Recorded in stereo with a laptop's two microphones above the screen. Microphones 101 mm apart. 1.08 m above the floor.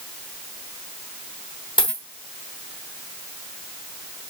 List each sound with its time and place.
1.8 s a dropped coin: 50° left (ahead or behind), 1.2 m